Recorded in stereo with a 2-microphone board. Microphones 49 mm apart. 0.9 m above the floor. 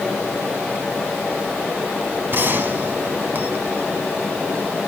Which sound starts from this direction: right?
A gunshot, at 2.3 s.